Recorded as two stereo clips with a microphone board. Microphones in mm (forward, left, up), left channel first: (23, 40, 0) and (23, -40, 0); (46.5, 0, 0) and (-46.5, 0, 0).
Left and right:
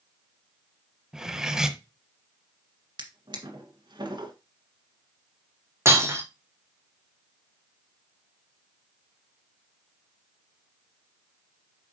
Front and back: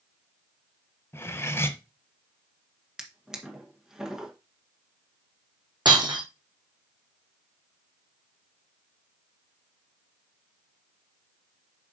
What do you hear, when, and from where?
1.1 s cutlery clinking: 15° right, 0.8 m
3.0 s a drawer: 95° right, 1.6 m
5.8 s breaking glass: 145° right, 1.6 m